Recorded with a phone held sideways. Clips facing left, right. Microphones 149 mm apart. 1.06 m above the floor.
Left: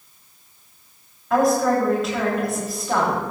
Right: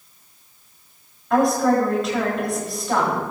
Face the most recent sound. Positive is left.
turn(degrees=0)  # may be behind; listen again after turning